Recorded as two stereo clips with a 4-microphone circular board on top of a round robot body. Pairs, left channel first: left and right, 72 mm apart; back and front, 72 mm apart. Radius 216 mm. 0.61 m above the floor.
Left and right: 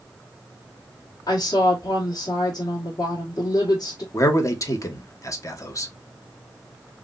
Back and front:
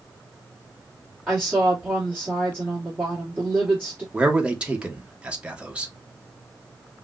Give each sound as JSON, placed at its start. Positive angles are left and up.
{"t": 1.3, "sound": "a woman speaking", "azimuth_deg": 65, "distance_m": 1.9}
{"t": 4.1, "sound": "a man speaking", "azimuth_deg": 70, "distance_m": 1.3}